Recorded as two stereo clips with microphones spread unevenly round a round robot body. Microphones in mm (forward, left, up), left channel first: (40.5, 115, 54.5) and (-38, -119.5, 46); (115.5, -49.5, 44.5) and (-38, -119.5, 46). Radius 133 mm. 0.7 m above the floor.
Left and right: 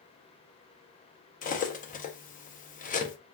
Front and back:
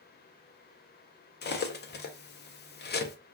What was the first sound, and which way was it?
Cutlery clinking, 15° left.